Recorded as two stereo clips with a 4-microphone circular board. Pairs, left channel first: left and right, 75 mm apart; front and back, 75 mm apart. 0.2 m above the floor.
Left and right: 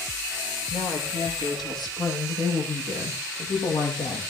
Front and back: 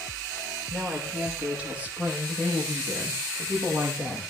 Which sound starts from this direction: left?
A woman speaking, at 0.7 s.